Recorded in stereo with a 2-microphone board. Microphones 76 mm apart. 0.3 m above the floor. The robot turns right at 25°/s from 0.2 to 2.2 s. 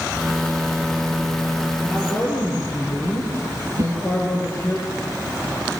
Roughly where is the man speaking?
Left.